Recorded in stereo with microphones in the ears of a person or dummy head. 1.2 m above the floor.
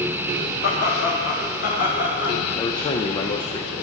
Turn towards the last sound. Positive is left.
turn(degrees=20)  # may be behind; listen again after turning